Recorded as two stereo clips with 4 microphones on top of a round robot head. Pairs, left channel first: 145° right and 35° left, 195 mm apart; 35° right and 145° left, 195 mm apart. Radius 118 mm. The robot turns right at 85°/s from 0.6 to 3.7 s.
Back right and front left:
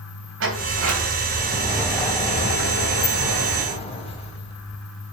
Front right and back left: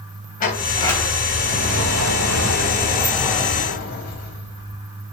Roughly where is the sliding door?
Ahead.